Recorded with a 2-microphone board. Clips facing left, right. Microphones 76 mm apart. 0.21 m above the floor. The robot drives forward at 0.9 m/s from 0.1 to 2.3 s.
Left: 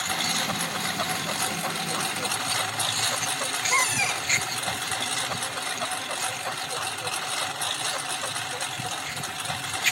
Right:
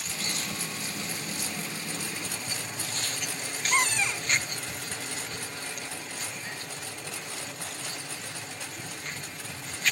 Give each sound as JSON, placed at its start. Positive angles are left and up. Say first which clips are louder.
{"t": 0.0, "sound": "a lawn mower", "louder": "left 8 dB", "side_deg": 65}
{"t": 3.7, "sound": "a cupboard door", "louder": "left 1 dB", "side_deg": 5}